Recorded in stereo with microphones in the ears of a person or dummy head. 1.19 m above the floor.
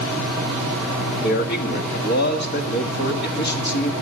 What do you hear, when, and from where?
0.0 s a fan: centre (ahead or behind), 6.5 m
1.2 s a man speaking: 60° left (ahead or behind), 1.8 m